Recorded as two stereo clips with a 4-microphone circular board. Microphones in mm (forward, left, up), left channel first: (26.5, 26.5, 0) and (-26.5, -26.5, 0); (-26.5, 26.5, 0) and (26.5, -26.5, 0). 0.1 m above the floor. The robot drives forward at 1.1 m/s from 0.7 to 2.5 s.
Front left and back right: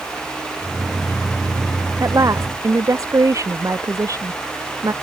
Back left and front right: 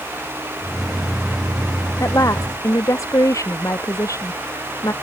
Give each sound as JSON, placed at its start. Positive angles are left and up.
{"t": 2.0, "sound": "a woman speaking", "azimuth_deg": 180}